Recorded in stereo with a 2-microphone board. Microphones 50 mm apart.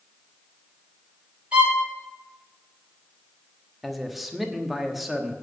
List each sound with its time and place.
1.5 s a violin: 25° right (ahead or behind), 4 m
3.8 s a man speaking: centre (ahead or behind), 1.2 m